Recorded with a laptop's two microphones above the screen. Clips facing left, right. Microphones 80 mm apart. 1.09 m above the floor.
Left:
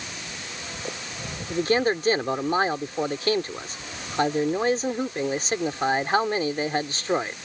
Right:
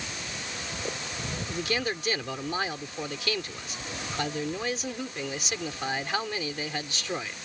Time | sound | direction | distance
1.5 | a man speaking | 40° left (ahead or behind) | ?